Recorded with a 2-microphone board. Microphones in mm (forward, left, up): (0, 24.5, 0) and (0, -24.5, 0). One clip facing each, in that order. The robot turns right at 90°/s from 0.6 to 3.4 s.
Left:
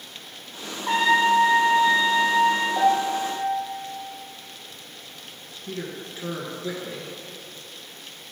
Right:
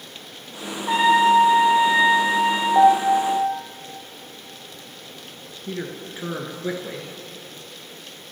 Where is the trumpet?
90° left, 5 m; by 2.6 s 110° right, 5 m.